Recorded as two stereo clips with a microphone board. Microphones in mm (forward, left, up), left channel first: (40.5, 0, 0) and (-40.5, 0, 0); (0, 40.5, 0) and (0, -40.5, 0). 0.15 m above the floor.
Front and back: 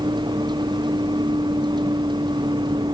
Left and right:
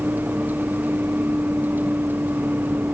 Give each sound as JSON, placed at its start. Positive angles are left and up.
{"t": 0.0, "sound": "a vehicle", "azimuth_deg": -160}